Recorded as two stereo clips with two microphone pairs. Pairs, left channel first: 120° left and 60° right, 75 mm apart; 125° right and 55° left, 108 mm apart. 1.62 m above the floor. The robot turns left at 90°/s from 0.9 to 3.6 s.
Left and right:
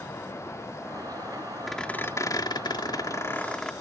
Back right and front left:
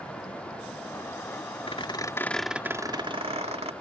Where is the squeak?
150° right; by 3.7 s 35° left.